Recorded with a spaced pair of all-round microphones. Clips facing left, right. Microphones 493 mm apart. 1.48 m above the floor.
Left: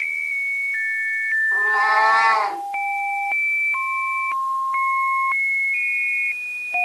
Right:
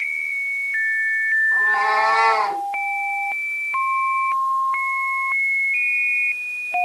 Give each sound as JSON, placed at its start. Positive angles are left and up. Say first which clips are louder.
{"t": 1.5, "sound": "a cat meowing", "louder": "even", "side_deg": -40, "distance_m": 3.5}